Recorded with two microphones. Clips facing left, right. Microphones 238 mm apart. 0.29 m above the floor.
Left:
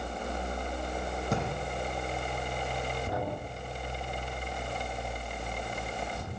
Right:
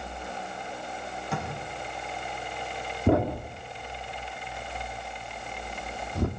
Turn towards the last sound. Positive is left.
turn(degrees=-65)  # may be behind; listen again after turning